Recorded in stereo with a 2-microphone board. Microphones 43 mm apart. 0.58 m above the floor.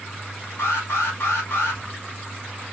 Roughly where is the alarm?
Left.